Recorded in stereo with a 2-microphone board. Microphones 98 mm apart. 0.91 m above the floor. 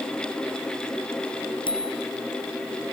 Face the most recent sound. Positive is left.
turn(degrees=55)  # may be behind; listen again after turning